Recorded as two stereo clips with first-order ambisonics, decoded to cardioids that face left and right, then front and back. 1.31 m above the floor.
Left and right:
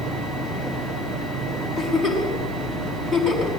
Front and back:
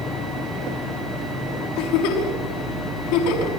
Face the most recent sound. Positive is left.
turn(degrees=-10)